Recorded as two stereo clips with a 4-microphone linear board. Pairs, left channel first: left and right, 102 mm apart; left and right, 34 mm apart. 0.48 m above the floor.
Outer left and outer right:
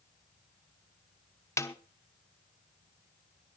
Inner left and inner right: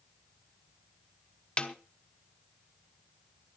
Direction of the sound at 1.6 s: 30° left (ahead or behind).